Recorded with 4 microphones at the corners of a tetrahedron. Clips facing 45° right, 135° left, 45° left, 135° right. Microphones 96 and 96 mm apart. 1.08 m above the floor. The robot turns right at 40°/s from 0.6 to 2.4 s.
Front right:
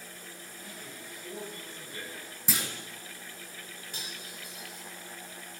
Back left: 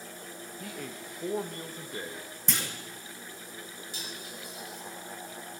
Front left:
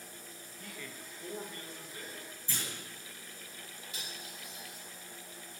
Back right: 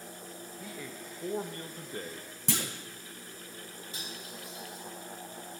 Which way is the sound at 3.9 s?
85° right.